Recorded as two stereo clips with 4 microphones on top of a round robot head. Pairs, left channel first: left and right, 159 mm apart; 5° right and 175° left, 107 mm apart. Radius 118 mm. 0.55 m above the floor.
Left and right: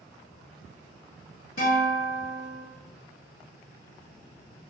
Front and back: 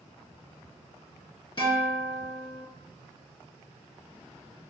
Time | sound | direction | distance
1.6 | a guitar | 40° left | 1.6 m